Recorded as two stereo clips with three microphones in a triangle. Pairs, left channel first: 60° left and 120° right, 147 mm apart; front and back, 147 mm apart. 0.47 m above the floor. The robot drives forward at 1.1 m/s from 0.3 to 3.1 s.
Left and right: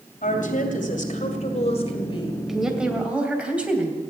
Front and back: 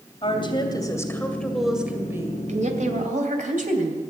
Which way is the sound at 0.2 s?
50° left.